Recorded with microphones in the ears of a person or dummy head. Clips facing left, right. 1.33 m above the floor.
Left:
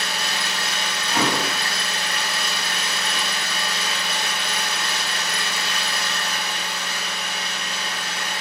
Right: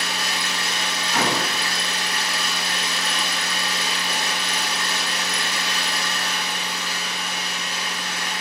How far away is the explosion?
About 1.2 m.